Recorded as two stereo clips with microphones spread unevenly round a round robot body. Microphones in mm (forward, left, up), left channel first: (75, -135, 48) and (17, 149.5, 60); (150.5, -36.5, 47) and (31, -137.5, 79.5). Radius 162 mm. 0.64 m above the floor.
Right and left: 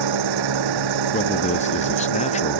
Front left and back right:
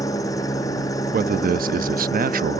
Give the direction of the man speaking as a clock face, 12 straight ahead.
4 o'clock.